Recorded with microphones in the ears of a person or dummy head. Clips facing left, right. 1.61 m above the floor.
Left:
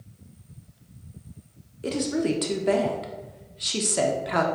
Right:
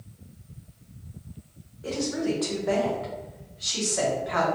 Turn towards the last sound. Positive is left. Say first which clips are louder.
# left 3 dB
turn(degrees=40)  # may be behind; listen again after turning